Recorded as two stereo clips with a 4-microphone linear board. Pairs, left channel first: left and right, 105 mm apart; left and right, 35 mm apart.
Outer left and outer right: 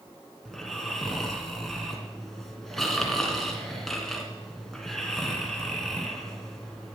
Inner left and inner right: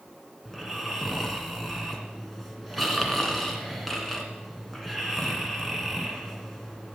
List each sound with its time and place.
0.5 s snoring: 5° left (ahead or behind), 1.9 m